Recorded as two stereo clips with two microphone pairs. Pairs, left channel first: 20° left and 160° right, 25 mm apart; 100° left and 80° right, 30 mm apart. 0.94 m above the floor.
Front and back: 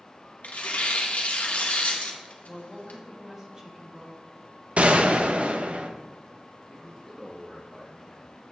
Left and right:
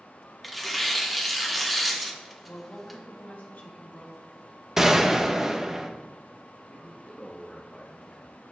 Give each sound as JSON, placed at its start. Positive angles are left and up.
{"t": 0.4, "sound": "tearing paper", "azimuth_deg": 10, "distance_m": 0.9}
{"t": 2.5, "sound": "a woman speaking", "azimuth_deg": 130, "distance_m": 1.6}
{"t": 4.8, "sound": "a gunshot", "azimuth_deg": -150, "distance_m": 0.5}
{"t": 6.7, "sound": "a man speaking", "azimuth_deg": 110, "distance_m": 0.8}